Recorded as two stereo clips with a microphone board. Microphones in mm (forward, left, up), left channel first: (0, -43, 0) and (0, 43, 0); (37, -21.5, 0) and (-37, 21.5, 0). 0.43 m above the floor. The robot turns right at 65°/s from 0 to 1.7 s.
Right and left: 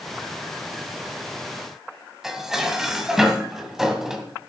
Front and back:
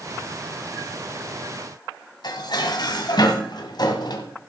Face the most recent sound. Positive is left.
turn(degrees=5)